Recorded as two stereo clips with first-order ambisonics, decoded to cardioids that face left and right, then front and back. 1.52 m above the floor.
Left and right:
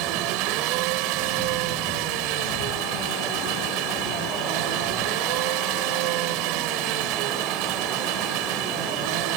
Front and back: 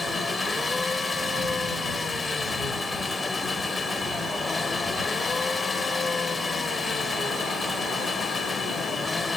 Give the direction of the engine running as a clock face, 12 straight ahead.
3 o'clock.